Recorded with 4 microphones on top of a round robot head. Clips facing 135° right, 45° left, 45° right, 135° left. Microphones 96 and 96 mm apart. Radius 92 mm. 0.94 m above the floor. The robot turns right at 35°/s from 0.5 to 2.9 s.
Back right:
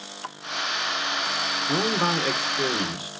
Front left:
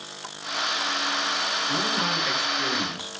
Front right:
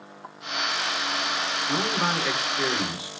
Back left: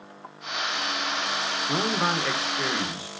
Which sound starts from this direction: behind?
A man speaking, at 1.7 s.